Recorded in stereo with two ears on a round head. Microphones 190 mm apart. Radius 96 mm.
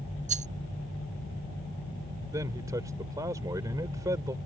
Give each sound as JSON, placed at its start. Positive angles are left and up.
{"t": 0.3, "sound": "a rattle", "side_deg": -35}
{"t": 2.3, "sound": "a man speaking", "side_deg": -15}